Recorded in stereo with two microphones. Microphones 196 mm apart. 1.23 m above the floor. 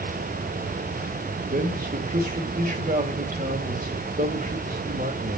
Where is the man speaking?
45° right (ahead or behind), 2.5 m.